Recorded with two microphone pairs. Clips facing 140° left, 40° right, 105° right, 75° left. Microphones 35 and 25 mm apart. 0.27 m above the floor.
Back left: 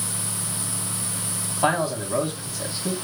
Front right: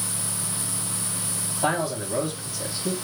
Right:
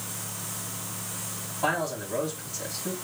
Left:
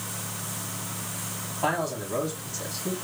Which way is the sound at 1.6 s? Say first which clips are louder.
Back left 3 dB, even; 160° left.